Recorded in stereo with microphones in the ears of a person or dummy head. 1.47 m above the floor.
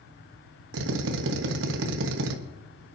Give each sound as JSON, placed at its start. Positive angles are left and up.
{"t": 0.7, "sound": "a drill", "side_deg": -75, "distance_m": 1.4}